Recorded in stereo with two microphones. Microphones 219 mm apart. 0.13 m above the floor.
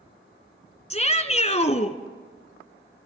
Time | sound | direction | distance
0.9 | a shout | 30° left (ahead or behind) | 1.6 m